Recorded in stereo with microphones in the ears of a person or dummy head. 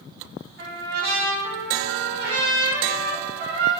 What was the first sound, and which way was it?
A trumpet, 55° right (ahead or behind).